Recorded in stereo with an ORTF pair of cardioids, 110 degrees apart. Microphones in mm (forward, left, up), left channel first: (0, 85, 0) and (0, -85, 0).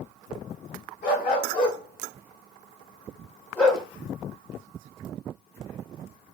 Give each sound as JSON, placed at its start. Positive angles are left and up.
{"t": 1.0, "sound": "a dog barking", "azimuth_deg": 65, "distance_m": 1.9}